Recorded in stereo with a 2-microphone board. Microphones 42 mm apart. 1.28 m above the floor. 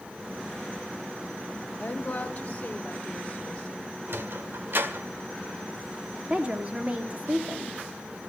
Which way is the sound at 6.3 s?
30° right (ahead or behind).